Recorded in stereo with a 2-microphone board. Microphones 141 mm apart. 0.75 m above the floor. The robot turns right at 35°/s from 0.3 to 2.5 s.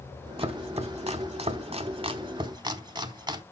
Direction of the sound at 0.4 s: 45° right (ahead or behind).